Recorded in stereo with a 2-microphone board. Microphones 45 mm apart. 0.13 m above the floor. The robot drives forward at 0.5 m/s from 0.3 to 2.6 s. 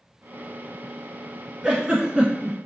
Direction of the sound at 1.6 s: 20° right (ahead or behind).